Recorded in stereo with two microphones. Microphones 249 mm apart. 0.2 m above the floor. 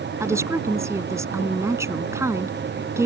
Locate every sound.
0.2 s a woman speaking: 10° right (ahead or behind)